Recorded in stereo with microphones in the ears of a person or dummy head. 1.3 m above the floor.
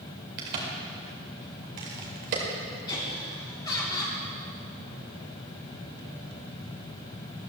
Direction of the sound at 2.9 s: 20° left (ahead or behind).